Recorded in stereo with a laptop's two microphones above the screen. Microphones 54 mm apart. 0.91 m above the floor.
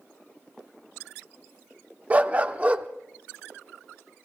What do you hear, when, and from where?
2.1 s a dog barking: 30° right (ahead or behind), 0.5 m